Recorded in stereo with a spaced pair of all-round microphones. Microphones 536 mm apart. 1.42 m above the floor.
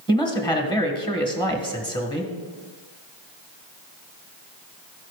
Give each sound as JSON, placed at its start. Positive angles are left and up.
{"t": 0.1, "sound": "a man speaking", "side_deg": 10, "distance_m": 1.5}